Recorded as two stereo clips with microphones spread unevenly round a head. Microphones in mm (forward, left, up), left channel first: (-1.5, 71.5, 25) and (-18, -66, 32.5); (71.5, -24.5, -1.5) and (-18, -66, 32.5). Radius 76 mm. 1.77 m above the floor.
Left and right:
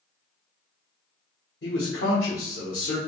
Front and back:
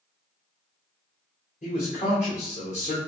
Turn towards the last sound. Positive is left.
turn(degrees=75)